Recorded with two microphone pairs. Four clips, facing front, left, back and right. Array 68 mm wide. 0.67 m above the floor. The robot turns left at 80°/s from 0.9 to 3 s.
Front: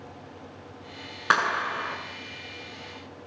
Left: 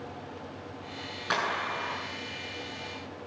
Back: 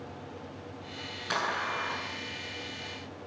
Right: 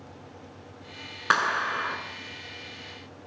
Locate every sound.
1.3 s a clap: 35° right, 6.5 m; by 2.0 s 90° right, 6.5 m